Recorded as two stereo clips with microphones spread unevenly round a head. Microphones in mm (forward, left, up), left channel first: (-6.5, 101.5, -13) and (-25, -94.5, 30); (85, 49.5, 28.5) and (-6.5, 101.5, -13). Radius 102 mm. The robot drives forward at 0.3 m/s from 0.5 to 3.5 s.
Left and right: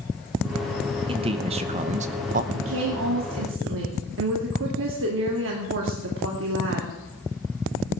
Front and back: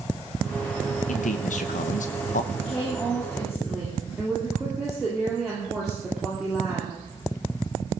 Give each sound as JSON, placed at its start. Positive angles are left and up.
{"t": 1.1, "sound": "a man speaking", "azimuth_deg": -25, "distance_m": 1.1}
{"t": 2.5, "sound": "a woman speaking", "azimuth_deg": -115, "distance_m": 2.0}